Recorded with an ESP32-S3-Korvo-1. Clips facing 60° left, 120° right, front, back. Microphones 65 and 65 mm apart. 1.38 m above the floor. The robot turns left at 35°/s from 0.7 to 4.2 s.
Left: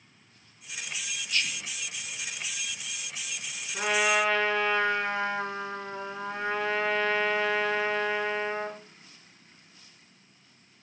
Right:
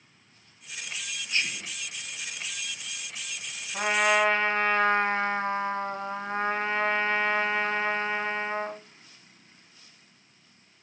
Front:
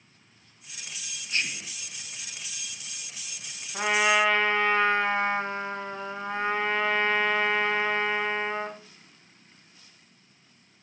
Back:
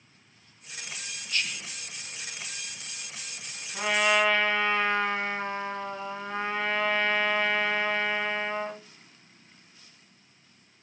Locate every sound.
1.3 s whispering: 55° right, 0.8 m; by 1.8 s 70° right, 0.8 m
3.7 s a trumpet: 65° right, 2.5 m; by 8.8 s 85° right, 2.5 m